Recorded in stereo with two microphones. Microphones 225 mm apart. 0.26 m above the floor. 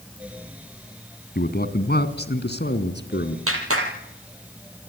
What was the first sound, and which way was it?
A man speaking, 45° left (ahead or behind).